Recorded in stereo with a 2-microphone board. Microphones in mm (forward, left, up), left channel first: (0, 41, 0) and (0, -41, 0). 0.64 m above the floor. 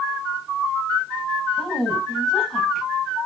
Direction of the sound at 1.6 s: 5° left (ahead or behind).